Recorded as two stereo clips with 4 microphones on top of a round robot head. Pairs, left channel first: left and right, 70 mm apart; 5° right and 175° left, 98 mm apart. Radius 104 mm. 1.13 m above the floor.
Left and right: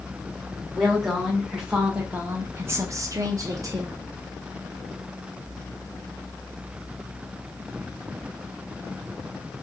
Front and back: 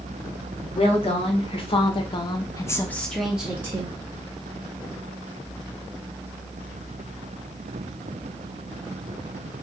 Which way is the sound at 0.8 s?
Straight ahead.